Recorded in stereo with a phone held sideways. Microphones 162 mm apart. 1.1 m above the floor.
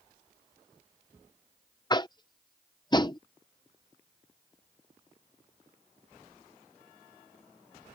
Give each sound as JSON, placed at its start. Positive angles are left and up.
{"t": 1.9, "sound": "tapping", "side_deg": 25}